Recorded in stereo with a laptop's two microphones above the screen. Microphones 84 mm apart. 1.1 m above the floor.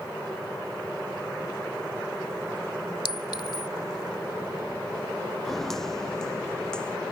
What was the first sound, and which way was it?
A clink, 65° left (ahead or behind).